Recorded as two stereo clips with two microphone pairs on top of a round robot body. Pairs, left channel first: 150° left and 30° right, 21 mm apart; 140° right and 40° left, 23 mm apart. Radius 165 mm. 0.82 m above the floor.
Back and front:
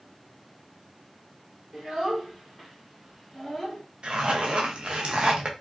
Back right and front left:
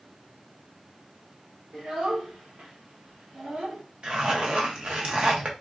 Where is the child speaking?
35° left, 2.5 m; by 3.8 s 60° left, 1.6 m.